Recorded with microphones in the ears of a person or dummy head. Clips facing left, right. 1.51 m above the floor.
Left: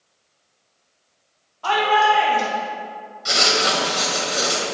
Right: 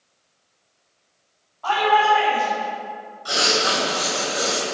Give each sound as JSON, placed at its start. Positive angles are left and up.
{"t": 1.6, "sound": "a shout", "side_deg": 45, "distance_m": 3.5}
{"t": 3.2, "sound": "writing", "side_deg": 35, "distance_m": 2.0}